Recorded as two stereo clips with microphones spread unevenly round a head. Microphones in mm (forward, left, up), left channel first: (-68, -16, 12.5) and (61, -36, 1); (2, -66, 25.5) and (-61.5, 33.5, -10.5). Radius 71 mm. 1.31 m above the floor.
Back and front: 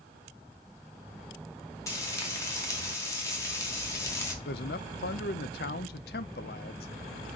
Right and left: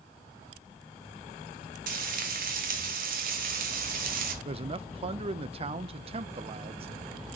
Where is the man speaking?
165° left, 0.6 m.